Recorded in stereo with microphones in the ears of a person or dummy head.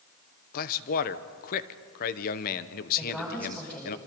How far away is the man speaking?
About 1.1 m.